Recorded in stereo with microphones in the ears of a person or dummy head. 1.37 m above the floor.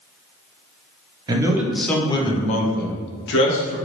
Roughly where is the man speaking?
Right.